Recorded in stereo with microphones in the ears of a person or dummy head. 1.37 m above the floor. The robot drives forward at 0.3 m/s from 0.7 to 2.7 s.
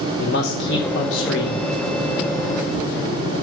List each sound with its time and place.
0.2 s a man speaking: 70° left (ahead or behind), 1.0 m; by 1.6 s 80° left, 0.9 m